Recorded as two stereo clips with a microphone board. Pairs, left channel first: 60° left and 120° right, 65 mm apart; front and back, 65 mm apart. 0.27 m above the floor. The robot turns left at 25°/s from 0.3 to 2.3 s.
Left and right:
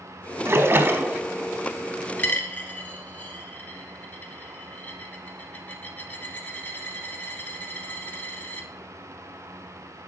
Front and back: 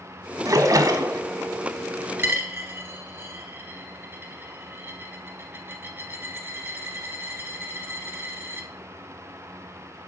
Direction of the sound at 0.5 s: 165° right.